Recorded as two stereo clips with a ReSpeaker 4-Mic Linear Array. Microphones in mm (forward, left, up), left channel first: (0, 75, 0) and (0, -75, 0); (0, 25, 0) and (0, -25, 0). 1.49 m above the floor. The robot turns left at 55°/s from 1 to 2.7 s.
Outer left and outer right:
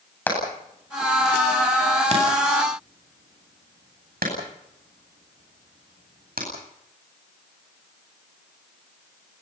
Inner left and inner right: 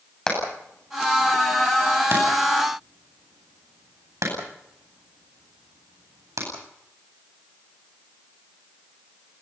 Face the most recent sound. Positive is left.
turn(degrees=-80)